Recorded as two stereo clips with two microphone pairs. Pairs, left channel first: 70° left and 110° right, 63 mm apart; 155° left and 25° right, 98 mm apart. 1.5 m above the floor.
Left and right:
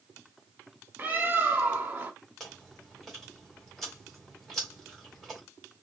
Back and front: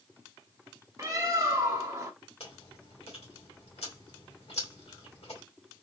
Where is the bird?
65° right, 1.2 m.